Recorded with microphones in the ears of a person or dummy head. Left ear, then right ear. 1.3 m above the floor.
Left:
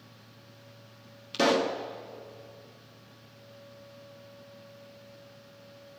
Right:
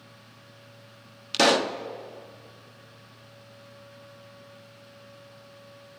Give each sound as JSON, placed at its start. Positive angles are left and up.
{"t": 1.3, "sound": "a pop", "side_deg": -25, "distance_m": 0.5}